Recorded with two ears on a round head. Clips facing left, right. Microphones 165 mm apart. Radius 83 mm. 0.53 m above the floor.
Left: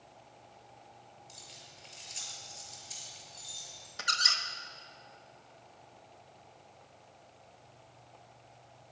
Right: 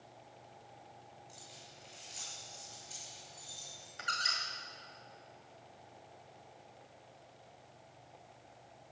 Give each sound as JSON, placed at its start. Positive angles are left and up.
{"t": 1.3, "sound": "keys jangling", "side_deg": 25, "distance_m": 6.5}
{"t": 4.0, "sound": "a squeak", "side_deg": 50, "distance_m": 1.7}